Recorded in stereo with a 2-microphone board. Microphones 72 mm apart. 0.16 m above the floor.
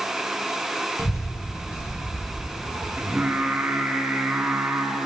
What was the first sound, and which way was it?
A child speaking, 45° left (ahead or behind).